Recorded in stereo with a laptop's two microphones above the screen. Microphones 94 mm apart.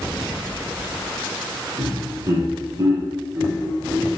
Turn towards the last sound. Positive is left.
turn(degrees=-15)  # may be behind; listen again after turning